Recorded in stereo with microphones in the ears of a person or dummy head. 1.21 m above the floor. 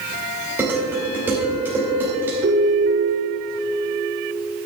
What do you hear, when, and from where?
0.6 s dishes clattering: 10° right (ahead or behind), 3.5 m
2.4 s a ringtone: 75° right (ahead or behind), 3 m